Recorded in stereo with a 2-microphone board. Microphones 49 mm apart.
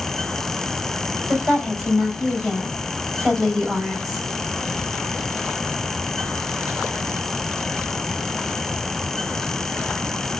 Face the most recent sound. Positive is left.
turn(degrees=-5)  # may be behind; listen again after turning